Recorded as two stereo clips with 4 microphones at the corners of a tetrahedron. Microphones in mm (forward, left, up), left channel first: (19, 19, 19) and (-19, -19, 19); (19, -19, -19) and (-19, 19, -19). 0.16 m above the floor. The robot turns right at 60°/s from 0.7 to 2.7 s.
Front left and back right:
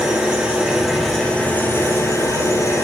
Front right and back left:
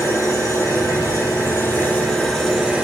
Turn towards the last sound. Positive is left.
turn(degrees=55)